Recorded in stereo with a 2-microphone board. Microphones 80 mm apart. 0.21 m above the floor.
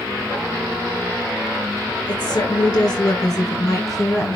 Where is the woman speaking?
65° left (ahead or behind), 3.5 m; by 4.3 s 30° left (ahead or behind), 1.8 m.